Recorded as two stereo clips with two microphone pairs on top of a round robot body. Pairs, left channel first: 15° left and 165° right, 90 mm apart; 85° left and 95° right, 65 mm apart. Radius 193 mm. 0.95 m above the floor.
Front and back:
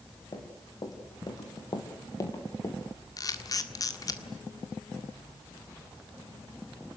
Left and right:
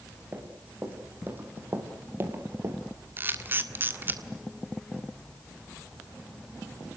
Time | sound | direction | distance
0.3 | running footsteps | 30° right | 4.5 m
3.2 | a camera shutter | 35° right | 1.6 m